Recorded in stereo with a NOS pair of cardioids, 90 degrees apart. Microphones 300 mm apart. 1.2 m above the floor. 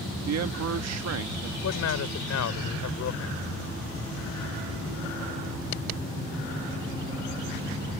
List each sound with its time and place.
0.2 s a man speaking: 60° right
1.6 s a man speaking: 60° left